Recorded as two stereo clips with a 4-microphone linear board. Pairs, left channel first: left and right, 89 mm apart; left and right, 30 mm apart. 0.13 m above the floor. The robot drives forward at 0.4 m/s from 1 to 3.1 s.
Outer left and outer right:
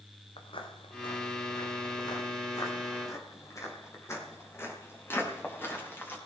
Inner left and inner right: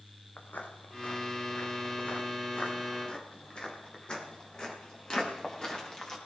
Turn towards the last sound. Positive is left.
turn(degrees=25)  # may be behind; listen again after turning